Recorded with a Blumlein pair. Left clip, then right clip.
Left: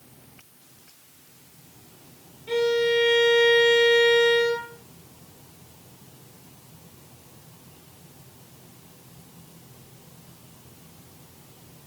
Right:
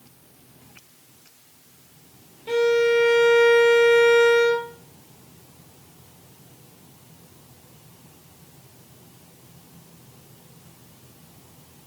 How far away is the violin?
About 2.5 m.